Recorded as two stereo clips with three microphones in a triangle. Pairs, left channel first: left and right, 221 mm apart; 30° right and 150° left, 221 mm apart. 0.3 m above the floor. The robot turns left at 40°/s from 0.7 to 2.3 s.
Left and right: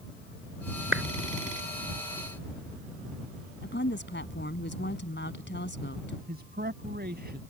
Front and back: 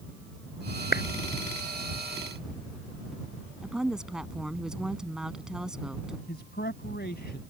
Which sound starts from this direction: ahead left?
A woman speaking, at 3.6 s.